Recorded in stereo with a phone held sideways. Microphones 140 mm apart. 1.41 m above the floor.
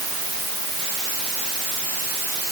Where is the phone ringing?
I don't hear a phone ringing.